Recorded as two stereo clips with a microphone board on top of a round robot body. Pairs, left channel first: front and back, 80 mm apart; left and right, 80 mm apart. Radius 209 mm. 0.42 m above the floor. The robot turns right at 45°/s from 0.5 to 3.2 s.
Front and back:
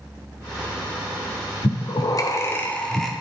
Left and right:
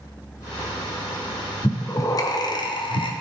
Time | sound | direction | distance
1.6 | breathing | 25° left | 0.9 m